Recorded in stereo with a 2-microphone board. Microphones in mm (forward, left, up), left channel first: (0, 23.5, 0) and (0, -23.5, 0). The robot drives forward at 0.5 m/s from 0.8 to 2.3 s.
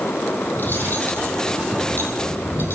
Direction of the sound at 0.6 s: 45° left (ahead or behind).